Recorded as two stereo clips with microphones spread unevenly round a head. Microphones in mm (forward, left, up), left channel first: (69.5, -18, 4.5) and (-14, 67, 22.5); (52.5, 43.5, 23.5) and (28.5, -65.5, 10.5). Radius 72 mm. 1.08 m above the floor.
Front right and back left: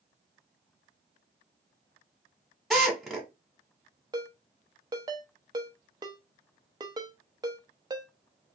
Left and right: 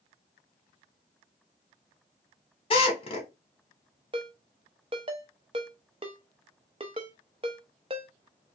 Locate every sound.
2.7 s a drill: 40° left, 2 m
4.1 s a ringtone: 160° right, 0.5 m